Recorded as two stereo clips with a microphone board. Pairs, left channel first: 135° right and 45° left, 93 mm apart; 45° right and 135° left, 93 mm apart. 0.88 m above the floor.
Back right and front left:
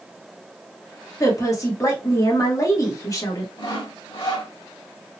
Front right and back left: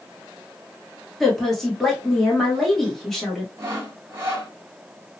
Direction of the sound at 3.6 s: 170° right.